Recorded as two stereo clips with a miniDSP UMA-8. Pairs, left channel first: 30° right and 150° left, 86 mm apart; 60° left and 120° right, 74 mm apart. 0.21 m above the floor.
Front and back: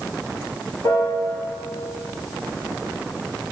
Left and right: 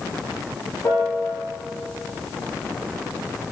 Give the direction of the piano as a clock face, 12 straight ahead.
11 o'clock.